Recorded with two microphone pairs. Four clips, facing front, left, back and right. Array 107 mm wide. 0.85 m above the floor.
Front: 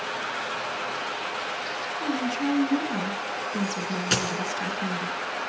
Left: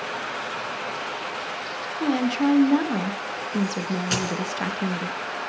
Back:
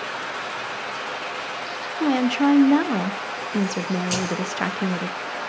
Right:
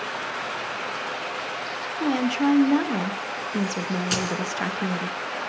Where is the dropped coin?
5° right, 3.5 m.